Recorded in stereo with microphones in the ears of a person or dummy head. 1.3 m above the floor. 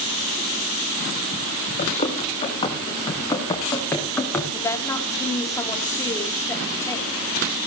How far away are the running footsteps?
About 5 m.